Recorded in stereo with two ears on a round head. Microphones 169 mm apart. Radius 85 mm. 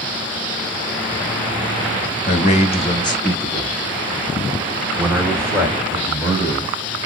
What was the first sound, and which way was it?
A man speaking, 40° left (ahead or behind).